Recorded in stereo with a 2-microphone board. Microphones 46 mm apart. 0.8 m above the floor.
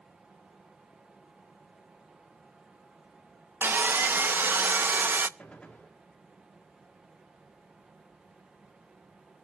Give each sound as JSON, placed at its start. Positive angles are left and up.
{"t": 3.6, "sound": "sawing", "side_deg": -50, "distance_m": 0.5}
{"t": 5.4, "sound": "a gunshot", "side_deg": 25, "distance_m": 2.0}